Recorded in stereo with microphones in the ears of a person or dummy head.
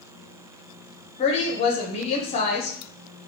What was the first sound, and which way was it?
A woman speaking, 35° left (ahead or behind).